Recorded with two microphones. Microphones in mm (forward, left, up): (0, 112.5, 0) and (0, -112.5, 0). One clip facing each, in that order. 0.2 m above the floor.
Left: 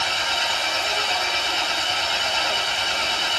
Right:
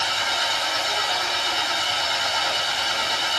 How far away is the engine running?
About 3.5 m.